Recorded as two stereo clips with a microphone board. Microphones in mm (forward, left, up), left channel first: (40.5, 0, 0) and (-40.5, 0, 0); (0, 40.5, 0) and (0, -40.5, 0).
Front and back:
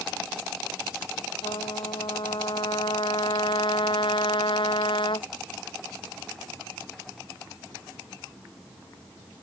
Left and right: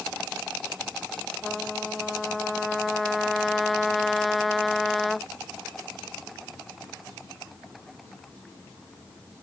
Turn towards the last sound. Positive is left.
turn(degrees=0)